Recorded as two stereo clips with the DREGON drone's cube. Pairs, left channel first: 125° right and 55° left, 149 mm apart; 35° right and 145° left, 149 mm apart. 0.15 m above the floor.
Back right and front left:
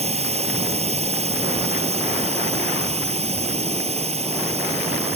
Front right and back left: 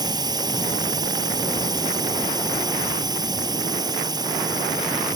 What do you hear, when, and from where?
0.0 s a drone: 90° left